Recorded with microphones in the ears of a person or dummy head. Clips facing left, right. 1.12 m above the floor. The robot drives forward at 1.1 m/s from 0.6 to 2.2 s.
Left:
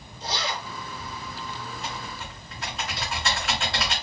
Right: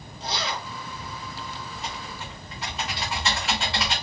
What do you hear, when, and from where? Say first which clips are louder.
0.2 s a zipper: even; 25° right (ahead or behind), 3 m; by 0.7 s 30° right (ahead or behind), 2.5 m
1.7 s typing on a keyboard: left 1 dB; centre (ahead or behind), 2.5 m